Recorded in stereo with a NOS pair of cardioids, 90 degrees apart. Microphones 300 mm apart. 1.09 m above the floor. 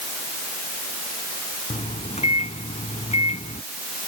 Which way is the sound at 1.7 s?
20° left.